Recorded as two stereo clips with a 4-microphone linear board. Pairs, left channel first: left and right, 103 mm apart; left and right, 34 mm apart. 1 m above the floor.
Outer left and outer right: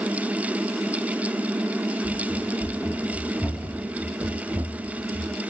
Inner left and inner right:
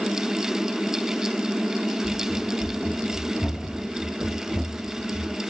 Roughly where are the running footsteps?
Left.